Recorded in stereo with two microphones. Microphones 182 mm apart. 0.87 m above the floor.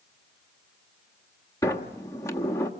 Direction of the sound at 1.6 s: 15° left (ahead or behind).